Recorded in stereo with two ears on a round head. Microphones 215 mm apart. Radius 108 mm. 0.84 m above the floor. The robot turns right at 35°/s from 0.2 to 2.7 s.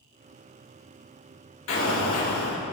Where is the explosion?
65° left, 2 m; by 2.6 s 95° left, 2 m.